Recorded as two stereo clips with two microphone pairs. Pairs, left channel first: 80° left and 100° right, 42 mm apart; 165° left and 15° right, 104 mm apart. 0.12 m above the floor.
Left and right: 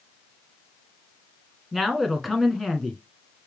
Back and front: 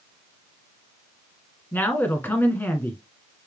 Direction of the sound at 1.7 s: Straight behind.